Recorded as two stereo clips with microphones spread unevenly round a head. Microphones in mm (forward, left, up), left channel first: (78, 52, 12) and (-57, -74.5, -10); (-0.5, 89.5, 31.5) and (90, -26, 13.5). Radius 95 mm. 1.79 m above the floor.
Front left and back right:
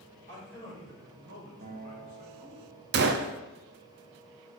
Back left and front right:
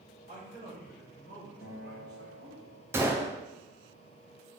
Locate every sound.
0.3 s a man speaking: 110° right, 4 m; by 2.6 s 75° right, 3 m
1.6 s a guitar: 170° left, 1.3 m
2.9 s a gunshot: 130° right, 0.6 m